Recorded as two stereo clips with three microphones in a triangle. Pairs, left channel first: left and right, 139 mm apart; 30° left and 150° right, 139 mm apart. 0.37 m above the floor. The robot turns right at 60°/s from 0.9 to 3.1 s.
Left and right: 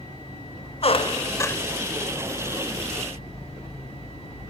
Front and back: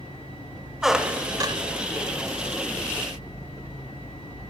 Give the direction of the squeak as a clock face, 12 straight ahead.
8 o'clock.